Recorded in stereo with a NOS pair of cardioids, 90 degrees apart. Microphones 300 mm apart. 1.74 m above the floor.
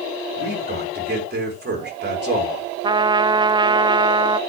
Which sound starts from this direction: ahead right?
A man speaking, at 0.4 s.